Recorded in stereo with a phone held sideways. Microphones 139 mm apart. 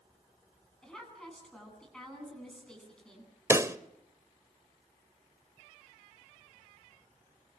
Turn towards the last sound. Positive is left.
turn(degrees=-20)  # may be behind; listen again after turning